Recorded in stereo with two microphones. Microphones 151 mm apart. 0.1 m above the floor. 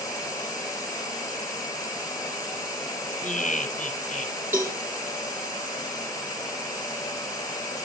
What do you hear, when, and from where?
3.2 s laughter: 55° left (ahead or behind), 2.5 m
4.5 s a cowbell: 15° right (ahead or behind), 3 m